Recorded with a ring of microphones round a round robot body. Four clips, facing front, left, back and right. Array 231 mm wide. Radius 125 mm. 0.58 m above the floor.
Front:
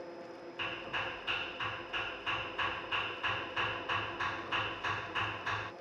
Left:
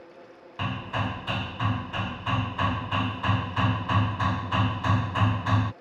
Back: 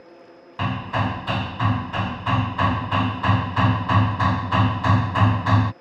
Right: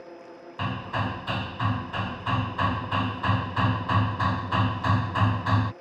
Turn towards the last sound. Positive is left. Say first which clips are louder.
# right 1 dB, back 16 dB
turn(degrees=-175)